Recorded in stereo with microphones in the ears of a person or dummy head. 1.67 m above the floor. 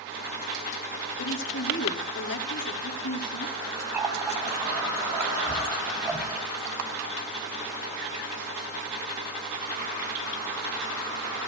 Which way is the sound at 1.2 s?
65° left (ahead or behind).